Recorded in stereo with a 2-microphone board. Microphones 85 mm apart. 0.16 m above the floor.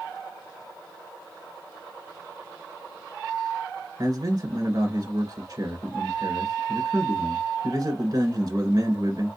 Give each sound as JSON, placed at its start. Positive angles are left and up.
{"t": 4.0, "sound": "a man speaking", "side_deg": -50, "distance_m": 2.0}